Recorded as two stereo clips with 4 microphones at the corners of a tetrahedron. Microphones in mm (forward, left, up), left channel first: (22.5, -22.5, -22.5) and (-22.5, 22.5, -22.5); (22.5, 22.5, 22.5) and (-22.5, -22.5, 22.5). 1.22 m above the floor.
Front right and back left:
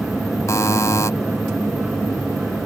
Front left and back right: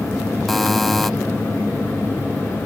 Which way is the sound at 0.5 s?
45° right.